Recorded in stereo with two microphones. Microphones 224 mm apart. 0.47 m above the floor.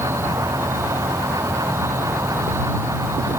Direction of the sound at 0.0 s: 10° right (ahead or behind).